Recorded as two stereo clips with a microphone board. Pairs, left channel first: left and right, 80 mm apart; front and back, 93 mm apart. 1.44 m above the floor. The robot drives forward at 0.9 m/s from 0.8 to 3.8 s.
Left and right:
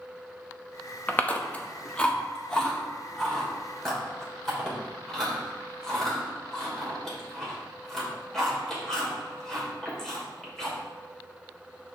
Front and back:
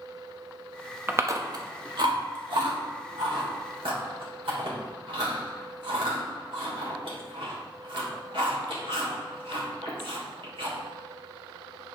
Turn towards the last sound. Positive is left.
turn(degrees=175)